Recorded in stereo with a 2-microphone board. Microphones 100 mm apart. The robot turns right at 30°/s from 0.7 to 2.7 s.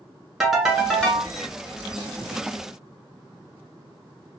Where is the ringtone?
5° right (ahead or behind), 1.1 m; by 1.3 s 15° left (ahead or behind), 1.1 m.